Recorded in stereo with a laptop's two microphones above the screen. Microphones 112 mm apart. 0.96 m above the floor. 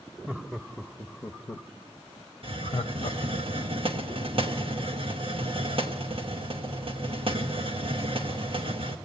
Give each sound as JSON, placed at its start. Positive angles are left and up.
{"t": 0.3, "sound": "laughter", "side_deg": -5, "distance_m": 1.1}
{"t": 2.4, "sound": "a hiss", "side_deg": -55, "distance_m": 1.0}